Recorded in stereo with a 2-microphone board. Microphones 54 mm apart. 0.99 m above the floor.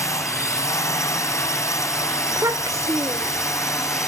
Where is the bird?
No bird in this recording.